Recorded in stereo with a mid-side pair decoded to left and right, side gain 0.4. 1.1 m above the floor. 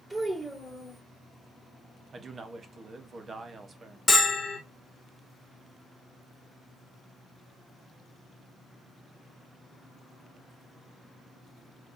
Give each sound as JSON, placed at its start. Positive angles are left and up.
{"t": 0.1, "sound": "a child speaking", "azimuth_deg": -15, "distance_m": 3.0}
{"t": 2.1, "sound": "a man speaking", "azimuth_deg": -45, "distance_m": 1.1}
{"t": 4.1, "sound": "a bell", "azimuth_deg": 25, "distance_m": 1.5}